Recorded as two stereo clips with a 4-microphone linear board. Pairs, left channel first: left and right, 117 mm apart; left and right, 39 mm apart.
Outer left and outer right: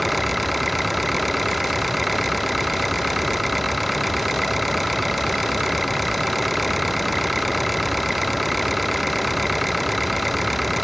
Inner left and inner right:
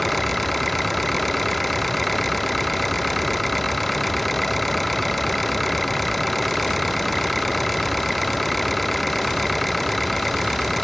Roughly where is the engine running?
Centre.